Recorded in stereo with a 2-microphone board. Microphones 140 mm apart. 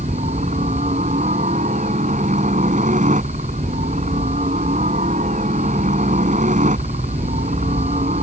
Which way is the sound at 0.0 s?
60° right (ahead or behind).